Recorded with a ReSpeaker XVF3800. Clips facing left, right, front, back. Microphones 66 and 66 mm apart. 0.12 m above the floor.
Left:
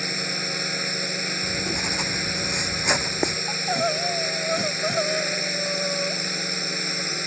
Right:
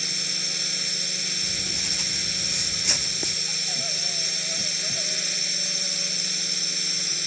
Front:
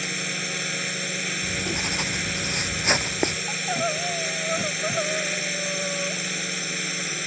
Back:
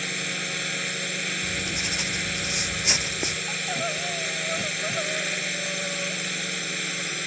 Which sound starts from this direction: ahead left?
Writing, at 1.4 s.